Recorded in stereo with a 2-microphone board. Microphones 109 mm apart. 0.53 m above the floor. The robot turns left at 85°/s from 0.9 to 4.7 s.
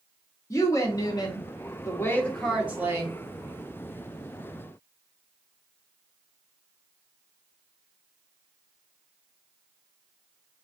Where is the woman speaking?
135° left, 0.8 m; by 3.2 s 60° right, 0.8 m.